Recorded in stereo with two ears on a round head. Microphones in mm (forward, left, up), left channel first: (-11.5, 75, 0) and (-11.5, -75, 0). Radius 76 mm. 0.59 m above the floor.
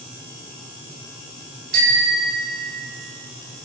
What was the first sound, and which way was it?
A bicycle bell, 60° right (ahead or behind).